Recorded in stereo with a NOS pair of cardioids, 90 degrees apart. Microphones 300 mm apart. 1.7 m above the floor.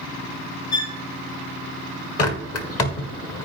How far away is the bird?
About 1.8 m.